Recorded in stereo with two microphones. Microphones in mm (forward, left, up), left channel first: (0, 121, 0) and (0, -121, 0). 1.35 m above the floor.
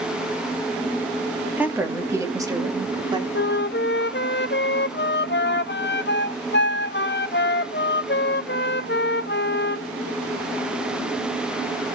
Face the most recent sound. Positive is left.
turn(degrees=50)  # may be behind; listen again after turning